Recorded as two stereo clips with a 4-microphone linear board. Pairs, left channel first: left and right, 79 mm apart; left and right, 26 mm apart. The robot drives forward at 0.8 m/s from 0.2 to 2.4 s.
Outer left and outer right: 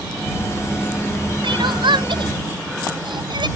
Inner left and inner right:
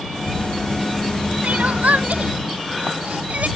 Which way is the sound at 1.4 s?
80° right.